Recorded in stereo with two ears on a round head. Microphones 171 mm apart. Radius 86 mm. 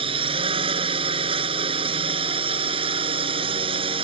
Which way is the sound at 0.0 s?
30° right (ahead or behind).